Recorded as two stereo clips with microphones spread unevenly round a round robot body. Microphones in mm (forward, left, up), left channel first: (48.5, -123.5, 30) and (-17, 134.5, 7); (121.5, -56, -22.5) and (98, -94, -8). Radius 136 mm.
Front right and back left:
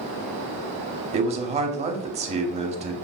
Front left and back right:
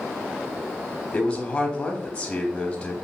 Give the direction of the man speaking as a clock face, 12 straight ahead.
10 o'clock.